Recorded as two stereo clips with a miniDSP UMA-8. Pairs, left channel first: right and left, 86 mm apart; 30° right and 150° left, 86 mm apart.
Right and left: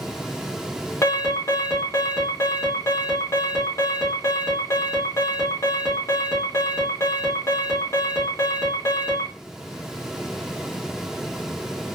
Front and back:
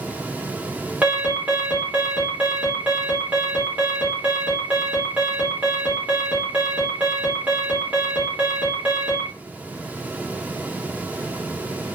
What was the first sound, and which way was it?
An alarm, 140° right.